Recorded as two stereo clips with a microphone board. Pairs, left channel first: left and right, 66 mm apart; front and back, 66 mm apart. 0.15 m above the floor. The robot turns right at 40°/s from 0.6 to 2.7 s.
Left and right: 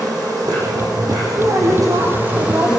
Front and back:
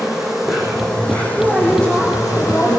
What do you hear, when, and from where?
0.0 s an insect: 95° right, 8 m; by 2.8 s 10° right, 8 m
1.4 s a woman speaking: 90° right, 6 m; by 2.7 s 40° right, 6 m